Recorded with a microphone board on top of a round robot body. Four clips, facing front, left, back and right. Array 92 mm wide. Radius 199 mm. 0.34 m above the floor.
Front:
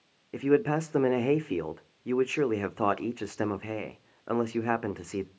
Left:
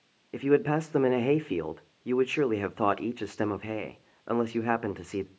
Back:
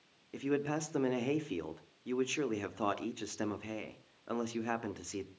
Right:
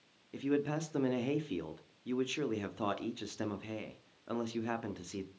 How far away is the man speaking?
About 1.4 m.